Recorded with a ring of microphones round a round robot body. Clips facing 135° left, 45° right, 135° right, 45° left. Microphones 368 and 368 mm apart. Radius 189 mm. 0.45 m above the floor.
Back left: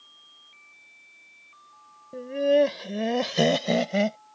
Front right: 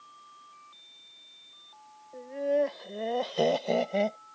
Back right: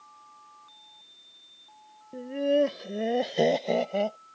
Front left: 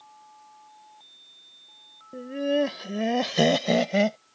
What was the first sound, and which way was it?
Laughter, 135° left.